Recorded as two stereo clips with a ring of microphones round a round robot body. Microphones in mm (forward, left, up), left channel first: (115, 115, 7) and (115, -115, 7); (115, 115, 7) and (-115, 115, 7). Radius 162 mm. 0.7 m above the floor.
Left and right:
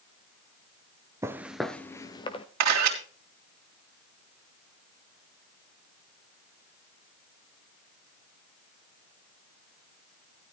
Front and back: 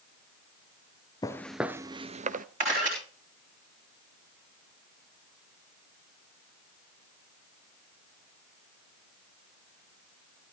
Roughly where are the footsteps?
Ahead right.